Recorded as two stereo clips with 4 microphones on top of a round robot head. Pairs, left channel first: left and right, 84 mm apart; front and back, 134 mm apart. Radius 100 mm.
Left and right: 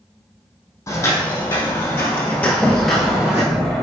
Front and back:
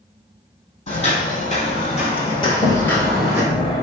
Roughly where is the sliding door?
Ahead.